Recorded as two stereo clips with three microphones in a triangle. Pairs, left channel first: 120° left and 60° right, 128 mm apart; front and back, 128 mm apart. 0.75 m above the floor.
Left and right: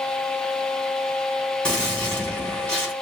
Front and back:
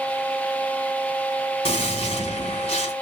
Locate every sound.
1.6 s a gunshot: 40° left, 4 m